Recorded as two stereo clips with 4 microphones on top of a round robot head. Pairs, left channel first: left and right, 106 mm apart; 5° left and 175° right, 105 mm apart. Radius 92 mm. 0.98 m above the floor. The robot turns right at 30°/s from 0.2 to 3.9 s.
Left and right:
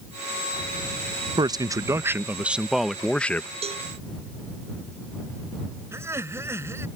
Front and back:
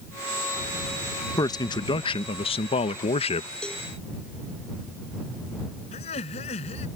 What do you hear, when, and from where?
1.4 s a man speaking: 45° right; by 3.5 s 20° left
3.6 s a cowbell: 75° right; by 3.9 s 70° right
5.9 s laughter: 25° right